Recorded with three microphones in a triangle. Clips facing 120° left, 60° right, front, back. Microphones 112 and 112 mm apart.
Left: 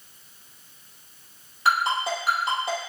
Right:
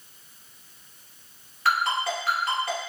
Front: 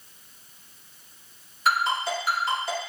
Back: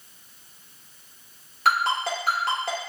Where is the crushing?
I don't hear crushing.